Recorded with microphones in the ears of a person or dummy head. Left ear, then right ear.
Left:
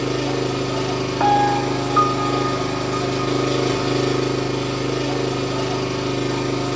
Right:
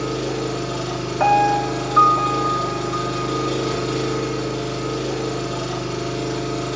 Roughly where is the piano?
Centre.